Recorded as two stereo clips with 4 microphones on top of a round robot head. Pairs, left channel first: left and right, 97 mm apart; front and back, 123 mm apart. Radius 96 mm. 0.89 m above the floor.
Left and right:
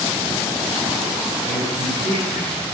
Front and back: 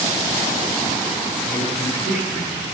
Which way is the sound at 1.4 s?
85° right.